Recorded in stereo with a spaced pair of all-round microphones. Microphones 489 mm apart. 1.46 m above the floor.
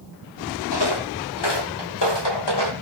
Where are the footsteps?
50° left (ahead or behind), 2.5 m; by 2.7 s 55° left (ahead or behind), 2.5 m.